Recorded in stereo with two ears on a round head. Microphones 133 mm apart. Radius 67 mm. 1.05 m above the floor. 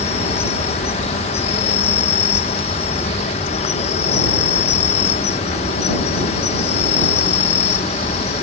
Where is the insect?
45° left (ahead or behind).